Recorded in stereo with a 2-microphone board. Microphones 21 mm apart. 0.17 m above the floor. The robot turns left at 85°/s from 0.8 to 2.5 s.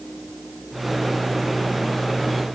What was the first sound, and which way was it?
Only background noise.